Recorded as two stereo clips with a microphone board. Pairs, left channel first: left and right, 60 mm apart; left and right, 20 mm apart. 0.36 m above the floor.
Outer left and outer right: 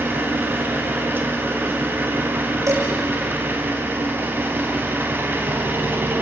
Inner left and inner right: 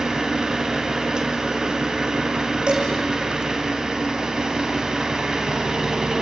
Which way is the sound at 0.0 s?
35° right (ahead or behind).